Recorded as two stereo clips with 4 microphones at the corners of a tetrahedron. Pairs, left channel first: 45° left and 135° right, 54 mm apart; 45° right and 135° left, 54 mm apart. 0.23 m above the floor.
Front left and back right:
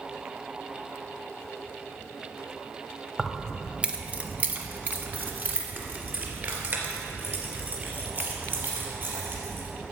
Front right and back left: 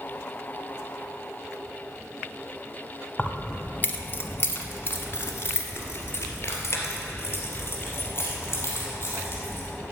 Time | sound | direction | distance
3.2 | keys jangling | 45° right | 0.7 m